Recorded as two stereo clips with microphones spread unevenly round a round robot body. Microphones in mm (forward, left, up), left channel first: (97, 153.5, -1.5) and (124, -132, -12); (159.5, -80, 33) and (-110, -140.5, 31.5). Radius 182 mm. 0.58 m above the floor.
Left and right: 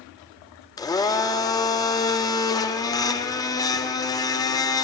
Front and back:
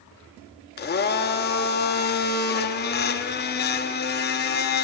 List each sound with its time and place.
0.8 s a blender: 25° left, 0.7 m